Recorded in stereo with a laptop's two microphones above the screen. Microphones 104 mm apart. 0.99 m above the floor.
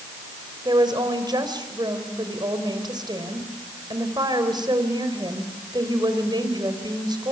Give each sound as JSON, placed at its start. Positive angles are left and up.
{"t": 0.7, "sound": "a woman speaking", "side_deg": -45, "distance_m": 4.5}